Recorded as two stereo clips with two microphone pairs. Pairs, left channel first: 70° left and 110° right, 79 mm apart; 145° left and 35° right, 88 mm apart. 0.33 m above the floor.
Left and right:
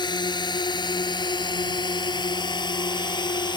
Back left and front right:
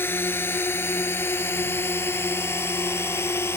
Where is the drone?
80° left; by 3.6 s 85° left.